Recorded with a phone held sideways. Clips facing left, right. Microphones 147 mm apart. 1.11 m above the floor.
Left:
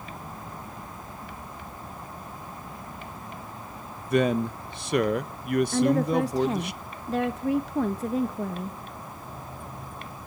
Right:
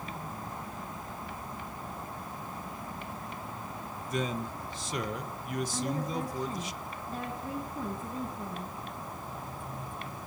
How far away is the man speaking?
About 0.8 m.